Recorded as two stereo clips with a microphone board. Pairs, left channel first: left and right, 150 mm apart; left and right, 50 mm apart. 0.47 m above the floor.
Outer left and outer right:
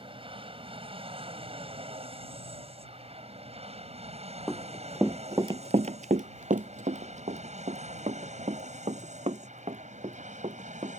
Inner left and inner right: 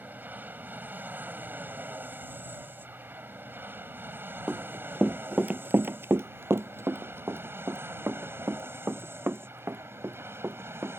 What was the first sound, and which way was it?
An aircraft, 35° right (ahead or behind).